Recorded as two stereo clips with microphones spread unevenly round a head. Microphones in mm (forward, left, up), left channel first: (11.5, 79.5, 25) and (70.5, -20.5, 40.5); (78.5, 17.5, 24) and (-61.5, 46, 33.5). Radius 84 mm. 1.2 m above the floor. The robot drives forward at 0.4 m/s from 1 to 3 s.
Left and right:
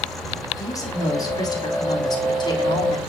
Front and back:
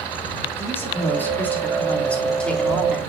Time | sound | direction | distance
0.6 | a woman speaking | 65° left | 4 m